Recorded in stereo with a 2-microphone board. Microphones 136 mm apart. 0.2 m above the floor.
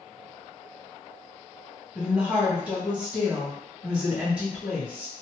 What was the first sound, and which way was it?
A woman speaking, 10° right (ahead or behind).